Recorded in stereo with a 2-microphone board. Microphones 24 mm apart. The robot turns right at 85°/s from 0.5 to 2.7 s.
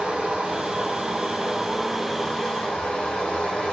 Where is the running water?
120° right, 2.5 m; by 3.7 s 70° left, 2.5 m.